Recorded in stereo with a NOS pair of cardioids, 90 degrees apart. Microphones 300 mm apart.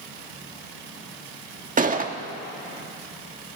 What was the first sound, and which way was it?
A gunshot, 25° right.